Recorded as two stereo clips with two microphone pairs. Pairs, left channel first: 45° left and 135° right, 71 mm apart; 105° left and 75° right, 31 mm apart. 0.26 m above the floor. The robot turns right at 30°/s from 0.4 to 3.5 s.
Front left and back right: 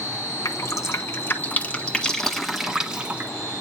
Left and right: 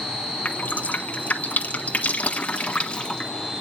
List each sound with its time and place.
0.5 s dripping: 75° left, 1.1 m; by 3.3 s 160° left, 1.1 m